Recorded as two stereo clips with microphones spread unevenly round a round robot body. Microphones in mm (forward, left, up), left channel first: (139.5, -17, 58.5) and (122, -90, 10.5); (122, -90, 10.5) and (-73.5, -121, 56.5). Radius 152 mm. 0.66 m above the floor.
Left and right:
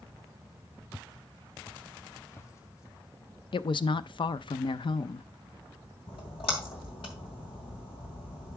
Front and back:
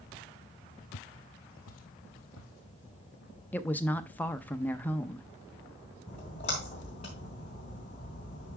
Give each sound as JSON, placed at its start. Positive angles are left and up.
{"t": 0.9, "sound": "footsteps", "azimuth_deg": 5, "distance_m": 1.6}
{"t": 3.5, "sound": "a woman speaking", "azimuth_deg": 50, "distance_m": 0.6}
{"t": 6.1, "sound": "a splash", "azimuth_deg": 80, "distance_m": 2.5}